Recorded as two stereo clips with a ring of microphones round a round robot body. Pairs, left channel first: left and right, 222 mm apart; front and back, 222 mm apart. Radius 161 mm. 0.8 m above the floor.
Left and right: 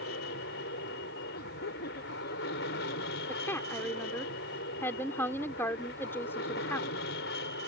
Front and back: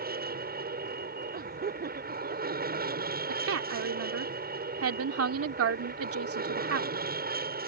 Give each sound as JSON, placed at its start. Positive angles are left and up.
{"t": 0.0, "sound": "an aircraft", "azimuth_deg": 140}
{"t": 1.3, "sound": "laughter", "azimuth_deg": 135}
{"t": 3.3, "sound": "a woman speaking", "azimuth_deg": 170}